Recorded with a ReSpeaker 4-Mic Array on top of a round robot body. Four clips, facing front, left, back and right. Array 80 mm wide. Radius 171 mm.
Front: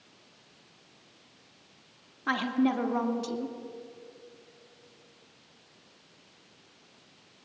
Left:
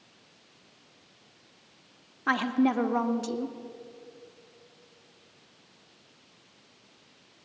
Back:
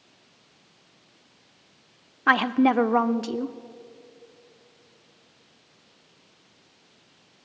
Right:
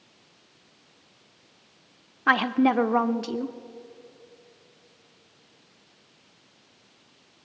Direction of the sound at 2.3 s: 150° right.